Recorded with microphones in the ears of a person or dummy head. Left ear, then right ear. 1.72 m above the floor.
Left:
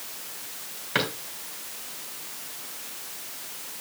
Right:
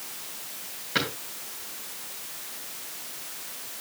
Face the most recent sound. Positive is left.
turn(degrees=25)  # may be behind; listen again after turning